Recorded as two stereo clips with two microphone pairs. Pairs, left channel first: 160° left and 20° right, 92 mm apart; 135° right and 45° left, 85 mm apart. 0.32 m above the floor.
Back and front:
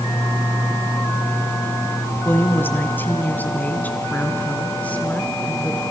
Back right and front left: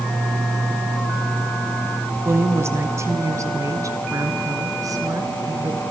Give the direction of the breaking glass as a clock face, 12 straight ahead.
I don't hear breaking glass.